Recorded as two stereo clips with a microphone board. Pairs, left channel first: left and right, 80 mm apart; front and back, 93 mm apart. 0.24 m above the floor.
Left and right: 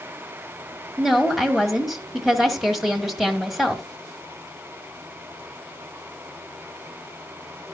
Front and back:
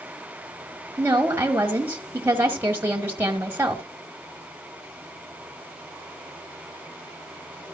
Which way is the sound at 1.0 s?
175° right.